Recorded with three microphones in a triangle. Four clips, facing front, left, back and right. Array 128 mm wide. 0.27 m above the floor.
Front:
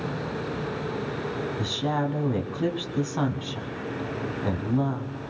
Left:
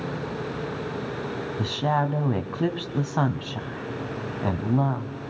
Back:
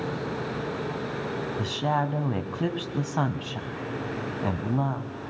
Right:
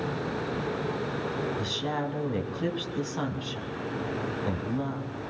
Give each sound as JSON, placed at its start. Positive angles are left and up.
{"t": 1.6, "sound": "a woman speaking", "azimuth_deg": 110, "distance_m": 2.0}